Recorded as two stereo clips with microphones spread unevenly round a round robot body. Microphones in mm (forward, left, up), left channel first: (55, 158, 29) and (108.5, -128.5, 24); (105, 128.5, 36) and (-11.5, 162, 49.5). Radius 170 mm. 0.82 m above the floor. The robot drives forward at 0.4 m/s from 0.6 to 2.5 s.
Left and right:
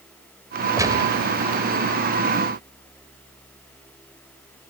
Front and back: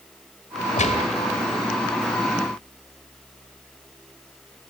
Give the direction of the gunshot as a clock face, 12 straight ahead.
12 o'clock.